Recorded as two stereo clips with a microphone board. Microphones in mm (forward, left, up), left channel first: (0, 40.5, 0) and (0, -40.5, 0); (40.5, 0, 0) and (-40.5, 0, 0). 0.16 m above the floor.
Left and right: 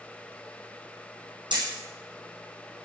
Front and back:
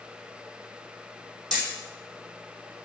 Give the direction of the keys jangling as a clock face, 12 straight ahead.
No keys jangling in this recording.